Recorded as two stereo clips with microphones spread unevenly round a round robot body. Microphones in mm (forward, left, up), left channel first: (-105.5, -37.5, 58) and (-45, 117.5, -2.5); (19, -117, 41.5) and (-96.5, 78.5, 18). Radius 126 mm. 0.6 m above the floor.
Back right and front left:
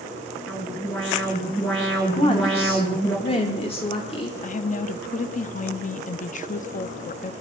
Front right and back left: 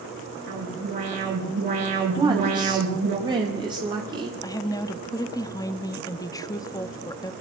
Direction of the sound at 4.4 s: 125° right.